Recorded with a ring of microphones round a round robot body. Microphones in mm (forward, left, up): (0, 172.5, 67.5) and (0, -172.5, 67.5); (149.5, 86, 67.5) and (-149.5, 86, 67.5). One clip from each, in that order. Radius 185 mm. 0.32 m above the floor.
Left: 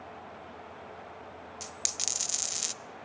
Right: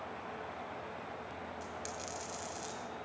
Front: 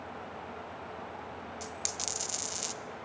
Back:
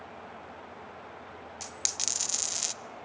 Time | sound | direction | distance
1.6 | a dropped coin | 120° left | 0.6 m